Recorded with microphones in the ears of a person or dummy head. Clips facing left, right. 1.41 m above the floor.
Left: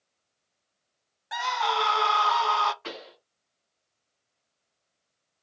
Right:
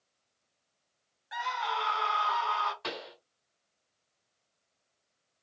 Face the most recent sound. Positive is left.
turn(degrees=-45)  # may be behind; listen again after turning